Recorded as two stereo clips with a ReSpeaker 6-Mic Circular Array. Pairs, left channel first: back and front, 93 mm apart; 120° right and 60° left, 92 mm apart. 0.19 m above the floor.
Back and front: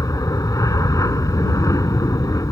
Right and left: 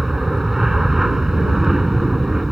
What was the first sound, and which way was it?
An aircraft, 145° left.